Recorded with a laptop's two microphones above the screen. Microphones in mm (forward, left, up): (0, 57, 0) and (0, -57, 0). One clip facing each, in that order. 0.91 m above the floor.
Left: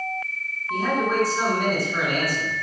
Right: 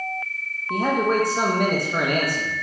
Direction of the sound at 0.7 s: 60° right (ahead or behind).